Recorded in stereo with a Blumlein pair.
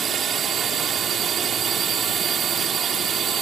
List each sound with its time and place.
0.0 s a drone: 20° right